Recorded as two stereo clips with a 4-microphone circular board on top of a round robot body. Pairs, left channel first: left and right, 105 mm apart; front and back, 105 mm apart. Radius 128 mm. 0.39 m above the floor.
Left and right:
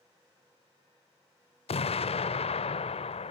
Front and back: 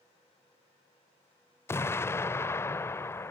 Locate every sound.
1.7 s an explosion: 65° left